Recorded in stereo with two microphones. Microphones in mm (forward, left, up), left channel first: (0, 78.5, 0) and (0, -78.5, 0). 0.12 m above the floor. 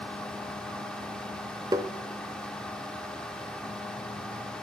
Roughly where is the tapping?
Right.